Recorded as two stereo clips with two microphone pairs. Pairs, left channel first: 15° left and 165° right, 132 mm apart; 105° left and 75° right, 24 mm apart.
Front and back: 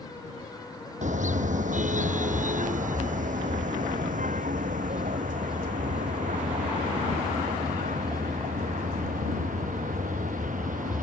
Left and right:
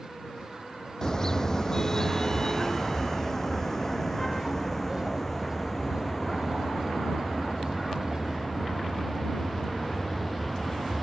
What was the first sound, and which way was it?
A car horn, 170° left.